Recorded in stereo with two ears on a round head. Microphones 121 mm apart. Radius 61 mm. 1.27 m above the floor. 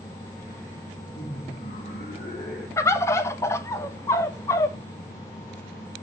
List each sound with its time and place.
1.1 s laughter: 60° left (ahead or behind), 2.0 m; by 2.7 s 50° left (ahead or behind), 2.5 m
2.8 s a bird: 20° left (ahead or behind), 0.6 m